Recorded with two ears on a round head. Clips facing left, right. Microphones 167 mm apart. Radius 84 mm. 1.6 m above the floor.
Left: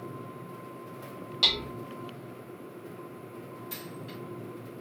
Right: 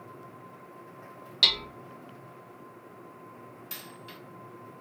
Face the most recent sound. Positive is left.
turn(degrees=-30)  # may be behind; listen again after turning